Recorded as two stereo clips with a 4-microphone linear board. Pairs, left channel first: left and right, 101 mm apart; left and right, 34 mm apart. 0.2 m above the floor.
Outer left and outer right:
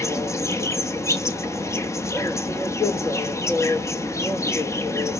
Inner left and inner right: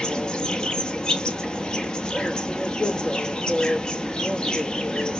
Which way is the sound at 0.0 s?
25° left (ahead or behind).